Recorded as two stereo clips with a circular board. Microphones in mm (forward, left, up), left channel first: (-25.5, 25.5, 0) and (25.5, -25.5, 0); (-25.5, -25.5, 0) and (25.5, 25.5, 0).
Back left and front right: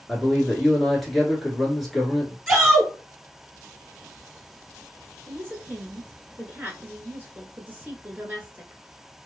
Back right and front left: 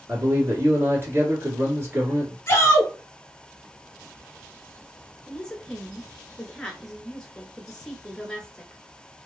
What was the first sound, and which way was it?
A man speaking, 50° left.